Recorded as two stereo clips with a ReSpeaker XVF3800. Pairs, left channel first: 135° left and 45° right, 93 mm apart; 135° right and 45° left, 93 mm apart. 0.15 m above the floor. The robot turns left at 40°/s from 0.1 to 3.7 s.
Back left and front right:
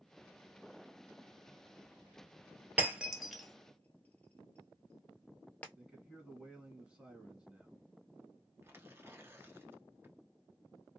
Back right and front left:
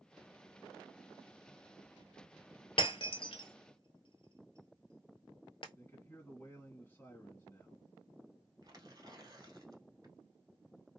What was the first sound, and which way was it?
Breaking glass, 115° right.